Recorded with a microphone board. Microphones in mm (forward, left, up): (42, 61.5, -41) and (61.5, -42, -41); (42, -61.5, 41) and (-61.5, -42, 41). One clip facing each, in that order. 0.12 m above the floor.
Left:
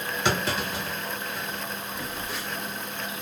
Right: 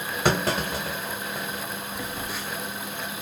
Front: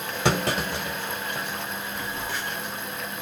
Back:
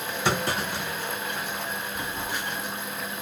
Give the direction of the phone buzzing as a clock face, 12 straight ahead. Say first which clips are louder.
Right 1 dB, even; 5 o'clock.